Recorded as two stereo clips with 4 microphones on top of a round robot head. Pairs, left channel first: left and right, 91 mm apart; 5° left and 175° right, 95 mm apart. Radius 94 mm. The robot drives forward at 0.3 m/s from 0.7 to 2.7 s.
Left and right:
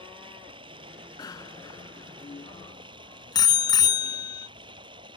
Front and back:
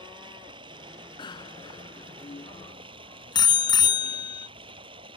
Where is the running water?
130° right; by 5.2 s 135° right.